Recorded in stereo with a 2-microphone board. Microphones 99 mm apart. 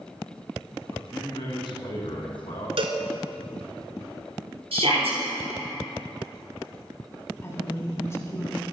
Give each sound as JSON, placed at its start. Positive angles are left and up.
{"t": 0.9, "sound": "a man speaking", "side_deg": 55, "distance_m": 3.0}
{"t": 2.8, "sound": "a cowbell", "side_deg": -70, "distance_m": 1.0}
{"t": 4.7, "sound": "a shout", "side_deg": -75, "distance_m": 4.0}
{"t": 7.4, "sound": "a woman speaking", "side_deg": 25, "distance_m": 1.8}